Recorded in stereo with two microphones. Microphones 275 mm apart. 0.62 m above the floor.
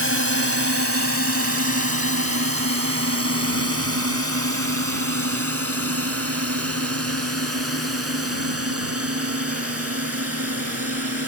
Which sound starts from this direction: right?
A drone, at 0.0 s.